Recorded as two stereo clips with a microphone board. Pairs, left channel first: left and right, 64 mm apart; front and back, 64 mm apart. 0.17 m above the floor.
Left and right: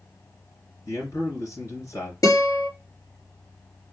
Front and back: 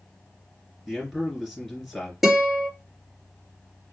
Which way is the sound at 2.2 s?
95° left.